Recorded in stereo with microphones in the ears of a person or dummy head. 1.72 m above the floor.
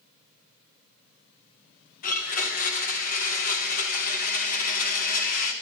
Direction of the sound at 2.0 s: 45° left (ahead or behind).